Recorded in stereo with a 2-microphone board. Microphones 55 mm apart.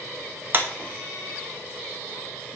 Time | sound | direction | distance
0.5 | a clap | 35° right (ahead or behind) | 1.3 m